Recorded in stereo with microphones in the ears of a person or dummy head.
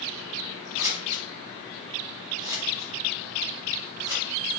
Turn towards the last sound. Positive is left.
turn(degrees=-15)  # may be behind; listen again after turning